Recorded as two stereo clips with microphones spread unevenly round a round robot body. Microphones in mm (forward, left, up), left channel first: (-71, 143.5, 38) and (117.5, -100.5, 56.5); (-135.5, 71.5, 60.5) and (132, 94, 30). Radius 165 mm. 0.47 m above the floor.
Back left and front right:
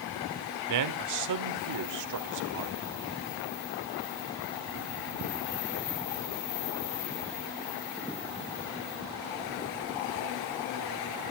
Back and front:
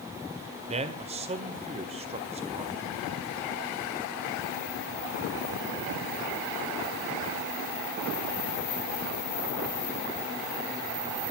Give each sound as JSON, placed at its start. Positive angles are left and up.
{"t": 0.7, "sound": "a man speaking", "azimuth_deg": -55, "distance_m": 1.6}